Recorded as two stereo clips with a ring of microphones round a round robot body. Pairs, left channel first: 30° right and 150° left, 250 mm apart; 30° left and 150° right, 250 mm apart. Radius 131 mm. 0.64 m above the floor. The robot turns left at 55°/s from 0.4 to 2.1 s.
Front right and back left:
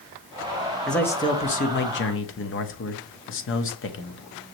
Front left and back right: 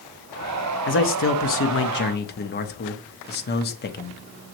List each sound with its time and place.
0.9 s a man speaking: 60° left, 0.9 m; by 4.2 s 10° right, 0.9 m